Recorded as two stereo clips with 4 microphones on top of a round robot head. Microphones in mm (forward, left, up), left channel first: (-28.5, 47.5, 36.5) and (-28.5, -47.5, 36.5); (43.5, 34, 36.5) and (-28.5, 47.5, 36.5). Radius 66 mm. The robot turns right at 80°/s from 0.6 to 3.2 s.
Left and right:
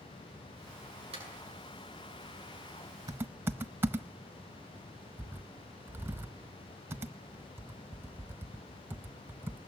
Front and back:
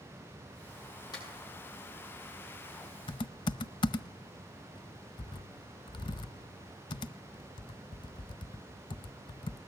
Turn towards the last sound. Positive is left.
turn(degrees=-20)